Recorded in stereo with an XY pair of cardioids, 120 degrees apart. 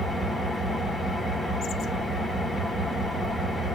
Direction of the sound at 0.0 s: 5° right.